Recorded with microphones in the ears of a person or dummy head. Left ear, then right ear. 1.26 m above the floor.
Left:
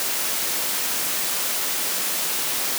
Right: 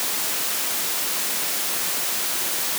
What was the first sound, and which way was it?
Only background noise.